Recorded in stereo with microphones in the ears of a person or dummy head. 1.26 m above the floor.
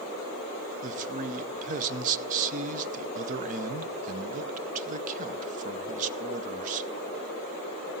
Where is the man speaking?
40° right (ahead or behind), 0.5 m.